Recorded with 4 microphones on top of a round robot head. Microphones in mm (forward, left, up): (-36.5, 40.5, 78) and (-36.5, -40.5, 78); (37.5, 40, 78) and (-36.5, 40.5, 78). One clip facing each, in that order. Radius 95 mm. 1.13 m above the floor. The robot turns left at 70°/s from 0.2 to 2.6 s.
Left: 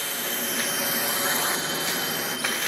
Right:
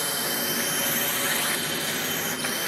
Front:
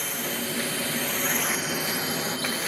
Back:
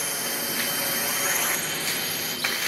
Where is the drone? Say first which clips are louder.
Right 2 dB, even; 105° right; by 2.7 s 15° right.